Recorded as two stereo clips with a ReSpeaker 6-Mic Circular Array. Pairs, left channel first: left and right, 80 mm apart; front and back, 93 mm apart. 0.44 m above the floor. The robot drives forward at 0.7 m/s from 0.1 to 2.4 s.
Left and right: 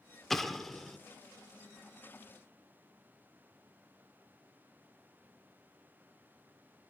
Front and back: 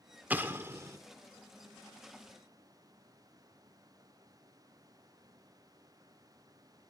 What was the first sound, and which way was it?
An explosion, 170° left.